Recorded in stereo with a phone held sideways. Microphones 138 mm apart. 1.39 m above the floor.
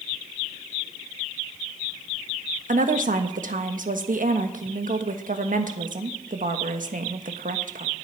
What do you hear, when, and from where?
2.7 s a woman speaking: 75° right (ahead or behind), 1.4 m